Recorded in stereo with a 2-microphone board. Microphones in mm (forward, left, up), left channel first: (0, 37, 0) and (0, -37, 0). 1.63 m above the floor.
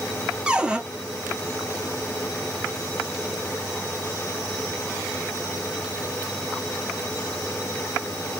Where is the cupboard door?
10° right (ahead or behind), 0.5 m.